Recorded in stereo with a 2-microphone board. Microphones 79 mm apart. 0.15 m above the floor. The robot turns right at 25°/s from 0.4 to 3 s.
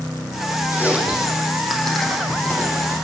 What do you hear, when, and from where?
0.7 s chewing: 25° right (ahead or behind), 6 m; by 3.0 s 30° left (ahead or behind), 6 m